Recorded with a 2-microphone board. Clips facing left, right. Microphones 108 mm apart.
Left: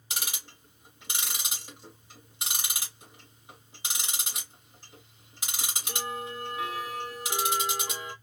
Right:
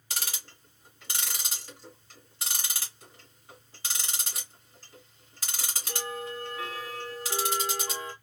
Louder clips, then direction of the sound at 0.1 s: Even; 15° left (ahead or behind).